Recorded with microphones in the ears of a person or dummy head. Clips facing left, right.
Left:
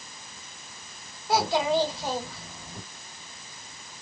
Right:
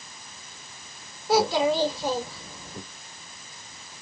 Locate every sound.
1.3 s a child speaking: 75° right (ahead or behind), 1.5 m